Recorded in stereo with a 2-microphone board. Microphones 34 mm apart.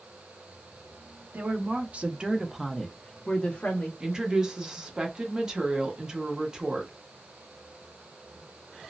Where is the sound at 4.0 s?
25° right (ahead or behind), 0.9 m.